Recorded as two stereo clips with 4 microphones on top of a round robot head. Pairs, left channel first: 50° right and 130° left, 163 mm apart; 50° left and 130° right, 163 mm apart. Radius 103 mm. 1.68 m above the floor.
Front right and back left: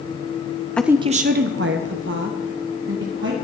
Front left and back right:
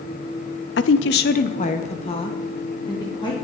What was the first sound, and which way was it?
A woman speaking, 30° left.